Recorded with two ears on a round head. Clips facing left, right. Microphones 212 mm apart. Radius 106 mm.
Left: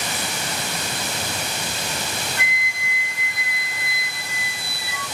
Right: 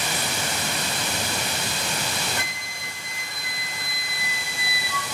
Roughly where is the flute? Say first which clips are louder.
Left 2 dB; right.